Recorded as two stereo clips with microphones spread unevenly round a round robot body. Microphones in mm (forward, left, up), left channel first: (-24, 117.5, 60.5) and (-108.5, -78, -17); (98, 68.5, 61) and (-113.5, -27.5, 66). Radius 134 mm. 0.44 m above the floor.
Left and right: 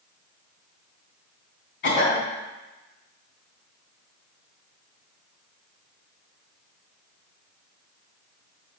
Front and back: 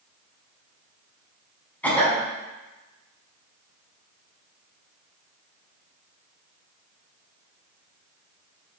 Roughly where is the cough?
Left.